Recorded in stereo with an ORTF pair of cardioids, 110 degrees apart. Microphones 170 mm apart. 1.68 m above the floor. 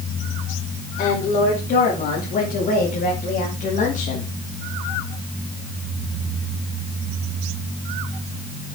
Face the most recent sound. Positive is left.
turn(degrees=50)